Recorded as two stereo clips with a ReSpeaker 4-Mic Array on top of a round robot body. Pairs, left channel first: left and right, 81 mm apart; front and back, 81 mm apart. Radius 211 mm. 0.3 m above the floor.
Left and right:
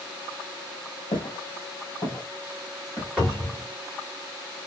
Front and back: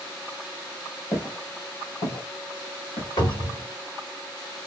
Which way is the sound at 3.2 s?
Straight ahead.